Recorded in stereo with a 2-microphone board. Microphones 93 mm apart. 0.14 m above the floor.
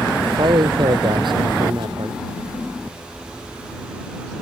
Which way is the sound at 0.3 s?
65° right (ahead or behind).